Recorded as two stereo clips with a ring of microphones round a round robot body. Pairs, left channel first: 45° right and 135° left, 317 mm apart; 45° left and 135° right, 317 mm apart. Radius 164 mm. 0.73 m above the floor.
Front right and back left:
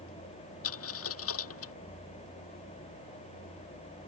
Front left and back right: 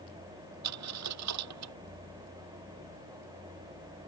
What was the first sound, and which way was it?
A dropped coin, 95° right.